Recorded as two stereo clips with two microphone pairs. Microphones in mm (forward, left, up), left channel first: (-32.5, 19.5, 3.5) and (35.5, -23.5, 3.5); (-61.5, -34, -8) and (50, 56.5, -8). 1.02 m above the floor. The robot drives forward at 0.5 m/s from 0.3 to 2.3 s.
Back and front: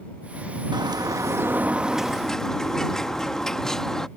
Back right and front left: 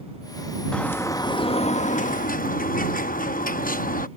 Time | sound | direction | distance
0.7 | a bird | 60° right | ?